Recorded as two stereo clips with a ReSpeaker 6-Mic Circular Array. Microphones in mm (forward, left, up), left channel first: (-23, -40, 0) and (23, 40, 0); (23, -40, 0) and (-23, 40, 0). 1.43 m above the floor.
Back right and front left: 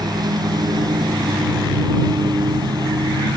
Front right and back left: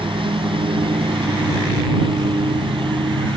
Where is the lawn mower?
100° left.